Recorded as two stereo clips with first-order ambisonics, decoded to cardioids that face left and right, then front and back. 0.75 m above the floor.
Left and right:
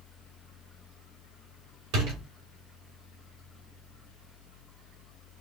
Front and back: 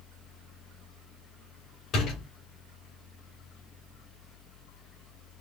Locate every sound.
1.9 s a door slam: 60° right, 2 m